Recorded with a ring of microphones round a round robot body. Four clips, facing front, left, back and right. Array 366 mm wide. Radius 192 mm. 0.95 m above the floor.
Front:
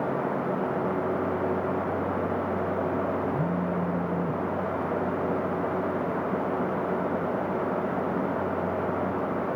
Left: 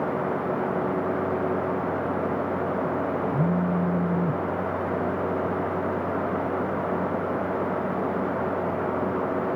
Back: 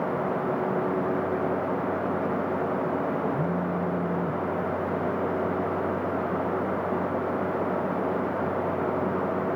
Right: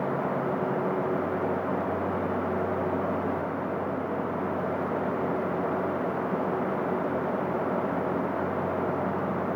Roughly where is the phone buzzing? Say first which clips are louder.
Left 5 dB, even; left.